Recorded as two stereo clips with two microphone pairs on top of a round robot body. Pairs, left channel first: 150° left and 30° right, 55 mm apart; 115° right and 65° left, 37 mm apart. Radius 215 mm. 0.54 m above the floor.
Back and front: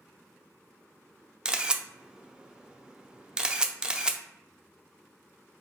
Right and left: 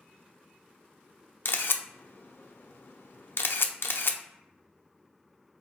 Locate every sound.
1.4 s a camera shutter: 110° right, 0.6 m